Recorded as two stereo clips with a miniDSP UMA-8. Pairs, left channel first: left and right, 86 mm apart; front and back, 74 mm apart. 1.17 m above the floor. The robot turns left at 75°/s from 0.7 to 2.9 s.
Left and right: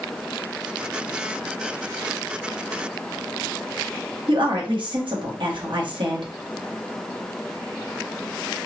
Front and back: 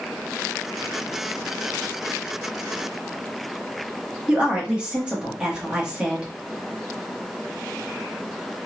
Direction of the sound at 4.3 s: 105° right.